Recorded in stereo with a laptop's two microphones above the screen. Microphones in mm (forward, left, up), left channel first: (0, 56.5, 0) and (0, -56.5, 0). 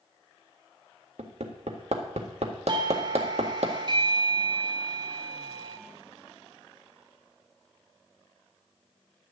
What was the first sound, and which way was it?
Hammering, 70° right (ahead or behind).